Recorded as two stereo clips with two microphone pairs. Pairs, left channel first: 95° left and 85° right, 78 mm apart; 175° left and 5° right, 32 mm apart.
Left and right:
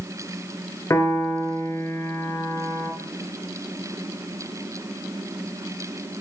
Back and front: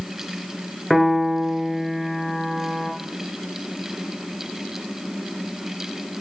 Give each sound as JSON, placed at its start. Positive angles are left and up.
{"t": 0.9, "sound": "a piano", "azimuth_deg": 95, "distance_m": 1.8}